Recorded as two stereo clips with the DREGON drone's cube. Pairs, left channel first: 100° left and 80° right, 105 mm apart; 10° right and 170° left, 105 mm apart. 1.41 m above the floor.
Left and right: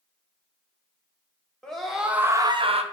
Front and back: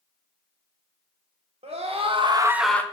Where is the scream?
175° right, 1.2 m; by 2.8 s 85° right, 0.6 m.